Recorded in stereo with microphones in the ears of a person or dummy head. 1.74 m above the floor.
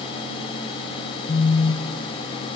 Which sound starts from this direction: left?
A phone buzzing, at 1.3 s.